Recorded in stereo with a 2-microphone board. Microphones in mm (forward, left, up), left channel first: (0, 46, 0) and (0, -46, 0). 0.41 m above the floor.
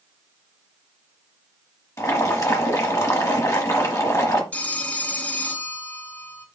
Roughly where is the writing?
No writing in this recording.